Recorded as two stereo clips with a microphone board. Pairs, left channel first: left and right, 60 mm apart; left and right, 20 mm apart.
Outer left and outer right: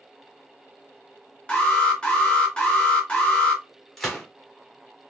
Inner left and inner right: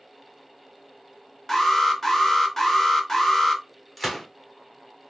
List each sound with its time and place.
1.5 s an alarm: 20° left (ahead or behind), 1.3 m
4.0 s a gunshot: 5° left (ahead or behind), 1.2 m